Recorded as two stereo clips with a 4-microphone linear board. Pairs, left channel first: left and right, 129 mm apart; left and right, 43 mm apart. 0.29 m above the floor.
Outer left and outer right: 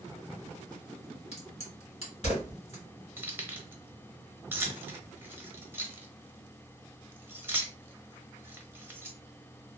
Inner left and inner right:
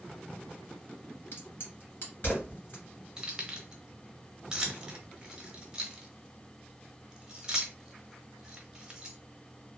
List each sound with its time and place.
1.3 s a crack: 55° left (ahead or behind), 2 m
3.2 s keys jangling: 15° right (ahead or behind), 0.8 m